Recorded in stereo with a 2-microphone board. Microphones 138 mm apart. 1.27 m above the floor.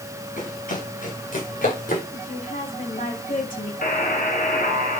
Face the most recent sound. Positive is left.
turn(degrees=90)